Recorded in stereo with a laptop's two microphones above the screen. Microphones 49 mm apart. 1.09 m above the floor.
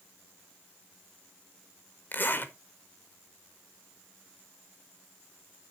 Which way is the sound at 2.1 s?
40° left (ahead or behind).